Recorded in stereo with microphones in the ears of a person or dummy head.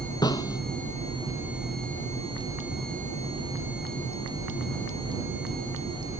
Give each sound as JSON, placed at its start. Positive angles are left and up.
{"t": 0.2, "sound": "a snare drum", "side_deg": 15}